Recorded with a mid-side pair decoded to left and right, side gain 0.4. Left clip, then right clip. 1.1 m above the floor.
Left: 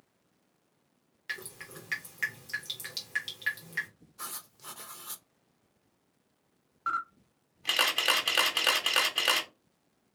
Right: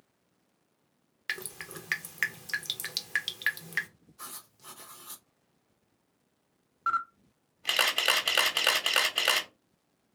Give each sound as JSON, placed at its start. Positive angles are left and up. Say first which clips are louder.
{"t": 1.3, "sound": "dripping", "louder": "right 3 dB", "azimuth_deg": -60, "distance_m": 0.7}
{"t": 4.2, "sound": "writing", "louder": "left 3 dB", "azimuth_deg": 30, "distance_m": 0.7}
{"t": 6.9, "sound": "a camera shutter", "louder": "right 3 dB", "azimuth_deg": -20, "distance_m": 1.0}